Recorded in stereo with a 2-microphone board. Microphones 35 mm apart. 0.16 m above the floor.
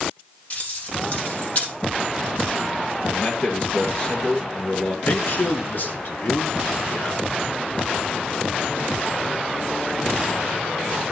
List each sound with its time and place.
0.5 s keys jangling: 40° left (ahead or behind), 4 m
3.1 s a man speaking: 35° left (ahead or behind), 2.5 m
5.0 s a man speaking: 50° left (ahead or behind), 1.8 m